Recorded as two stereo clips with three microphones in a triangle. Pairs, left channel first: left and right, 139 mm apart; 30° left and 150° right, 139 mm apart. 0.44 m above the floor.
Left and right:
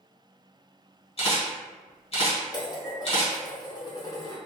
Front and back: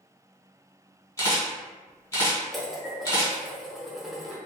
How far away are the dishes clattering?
About 0.5 m.